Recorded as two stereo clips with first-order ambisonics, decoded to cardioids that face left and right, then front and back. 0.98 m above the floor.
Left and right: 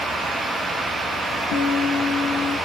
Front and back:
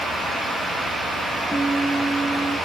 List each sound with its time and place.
1.5 s a guitar: 85° left, 2.5 m